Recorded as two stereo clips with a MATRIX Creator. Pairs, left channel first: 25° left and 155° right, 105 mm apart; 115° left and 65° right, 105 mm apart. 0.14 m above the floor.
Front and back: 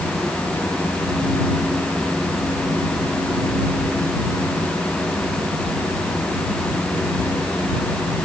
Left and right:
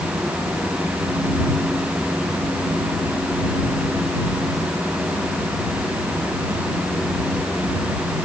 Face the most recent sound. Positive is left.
No sound to turn to.